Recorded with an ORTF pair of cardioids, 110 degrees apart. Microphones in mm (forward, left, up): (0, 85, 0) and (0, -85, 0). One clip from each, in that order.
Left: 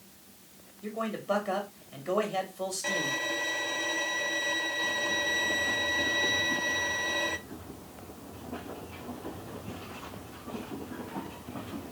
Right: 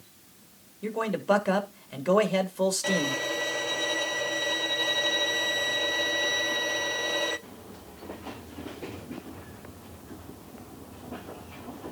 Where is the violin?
25° right, 0.9 m.